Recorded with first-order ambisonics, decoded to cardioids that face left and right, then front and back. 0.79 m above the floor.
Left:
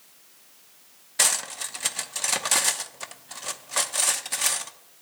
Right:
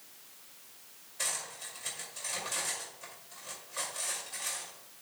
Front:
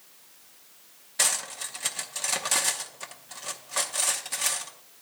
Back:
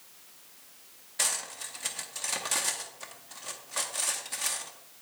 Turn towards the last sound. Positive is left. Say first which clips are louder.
# left 12 dB, front 4 dB
turn(degrees=75)